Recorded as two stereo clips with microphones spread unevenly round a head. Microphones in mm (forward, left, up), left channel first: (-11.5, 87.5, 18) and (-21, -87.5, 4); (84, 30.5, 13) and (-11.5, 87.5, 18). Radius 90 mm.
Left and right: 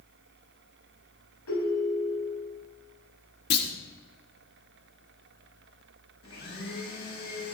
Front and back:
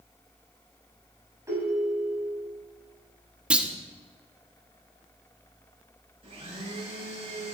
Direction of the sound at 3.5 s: 70° left.